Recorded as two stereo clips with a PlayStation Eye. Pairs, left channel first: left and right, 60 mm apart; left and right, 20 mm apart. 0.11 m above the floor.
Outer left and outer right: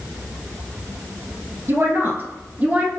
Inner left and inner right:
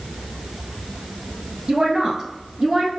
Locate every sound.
1.7 s a woman speaking: 50° right (ahead or behind), 1.8 m; by 2.9 s 20° right (ahead or behind), 1.2 m